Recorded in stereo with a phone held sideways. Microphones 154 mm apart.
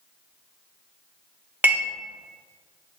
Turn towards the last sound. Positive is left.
turn(degrees=-10)  # may be behind; listen again after turning